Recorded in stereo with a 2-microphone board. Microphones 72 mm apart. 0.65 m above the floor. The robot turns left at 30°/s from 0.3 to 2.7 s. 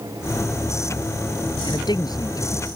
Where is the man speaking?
75° left; by 2.8 s 45° left.